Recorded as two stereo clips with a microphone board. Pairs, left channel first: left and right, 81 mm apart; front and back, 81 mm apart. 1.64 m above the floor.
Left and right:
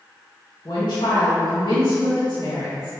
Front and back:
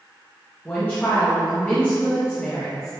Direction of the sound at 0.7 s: 70° left.